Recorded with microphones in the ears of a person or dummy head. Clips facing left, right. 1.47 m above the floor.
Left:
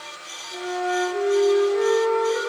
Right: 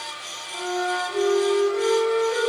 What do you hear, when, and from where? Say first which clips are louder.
0.5 s a flute: left 1 dB; 20° left (ahead or behind), 1.4 m